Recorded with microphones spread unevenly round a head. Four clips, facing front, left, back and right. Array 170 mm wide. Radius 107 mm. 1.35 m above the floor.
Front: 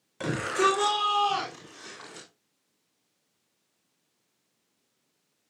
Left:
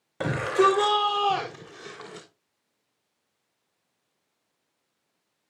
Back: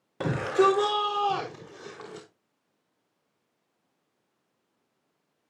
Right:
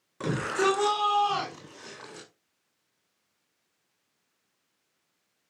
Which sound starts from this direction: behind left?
A shout, at 0.2 s.